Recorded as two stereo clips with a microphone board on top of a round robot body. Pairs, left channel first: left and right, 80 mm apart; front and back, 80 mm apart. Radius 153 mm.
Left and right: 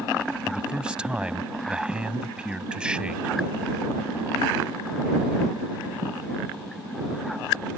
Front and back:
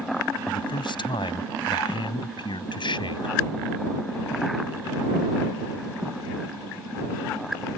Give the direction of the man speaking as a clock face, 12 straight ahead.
12 o'clock.